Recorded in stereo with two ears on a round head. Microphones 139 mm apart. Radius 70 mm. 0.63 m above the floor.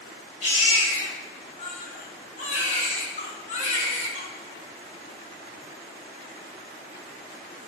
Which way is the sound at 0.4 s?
45° left (ahead or behind).